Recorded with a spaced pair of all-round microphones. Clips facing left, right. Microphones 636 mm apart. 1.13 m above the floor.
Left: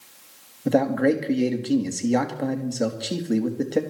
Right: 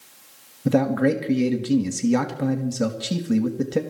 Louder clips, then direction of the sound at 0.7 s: Right 1 dB; 35° right (ahead or behind).